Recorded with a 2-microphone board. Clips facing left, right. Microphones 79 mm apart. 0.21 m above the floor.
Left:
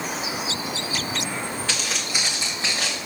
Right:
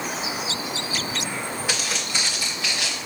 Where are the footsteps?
10° right (ahead or behind), 1.2 m; by 3.1 s 50° left (ahead or behind), 1.4 m.